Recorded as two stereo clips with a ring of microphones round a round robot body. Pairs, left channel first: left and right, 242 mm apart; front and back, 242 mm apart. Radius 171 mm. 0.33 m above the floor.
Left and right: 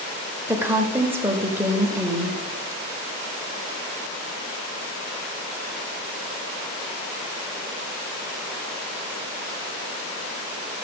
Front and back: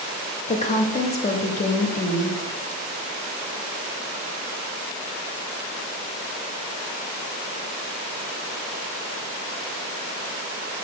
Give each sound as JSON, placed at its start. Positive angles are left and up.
{"t": 0.5, "sound": "a woman speaking", "azimuth_deg": -20, "distance_m": 1.0}